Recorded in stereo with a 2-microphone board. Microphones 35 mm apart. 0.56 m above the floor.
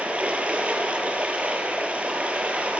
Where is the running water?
40° right (ahead or behind), 3 m.